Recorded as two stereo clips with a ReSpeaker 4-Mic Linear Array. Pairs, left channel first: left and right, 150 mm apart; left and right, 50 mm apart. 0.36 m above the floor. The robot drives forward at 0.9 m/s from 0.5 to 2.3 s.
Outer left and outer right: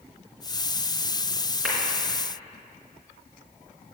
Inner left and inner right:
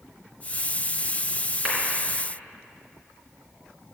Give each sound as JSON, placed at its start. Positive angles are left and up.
{"t": 1.6, "sound": "a clap", "side_deg": -5, "distance_m": 4.0}